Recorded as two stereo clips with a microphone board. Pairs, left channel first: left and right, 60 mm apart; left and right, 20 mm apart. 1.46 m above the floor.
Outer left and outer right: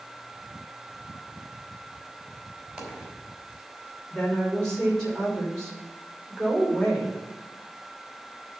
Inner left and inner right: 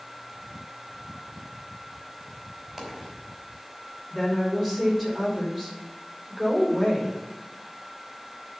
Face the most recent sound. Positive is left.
turn(degrees=10)  # may be behind; listen again after turning